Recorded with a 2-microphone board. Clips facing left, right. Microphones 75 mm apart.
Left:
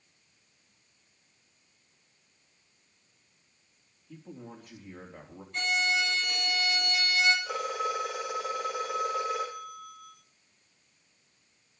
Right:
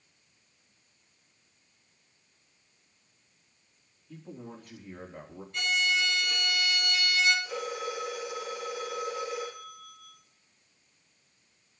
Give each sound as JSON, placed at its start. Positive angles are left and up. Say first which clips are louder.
{"t": 4.1, "sound": "a man speaking", "louder": "right 1 dB", "side_deg": 5, "distance_m": 4.0}
{"t": 5.5, "sound": "a violin", "louder": "even", "side_deg": 40, "distance_m": 3.5}
{"t": 7.5, "sound": "a phone ringing", "louder": "left 3 dB", "side_deg": 70, "distance_m": 3.5}